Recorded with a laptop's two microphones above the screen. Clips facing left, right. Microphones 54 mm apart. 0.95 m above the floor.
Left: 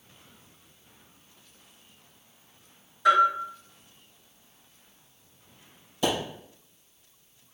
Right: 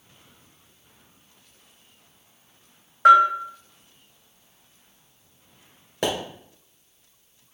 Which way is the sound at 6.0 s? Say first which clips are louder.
Right 1 dB; 70° right (ahead or behind).